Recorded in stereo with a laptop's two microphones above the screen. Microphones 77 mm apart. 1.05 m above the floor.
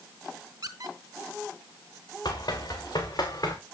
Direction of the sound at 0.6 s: 60° right (ahead or behind).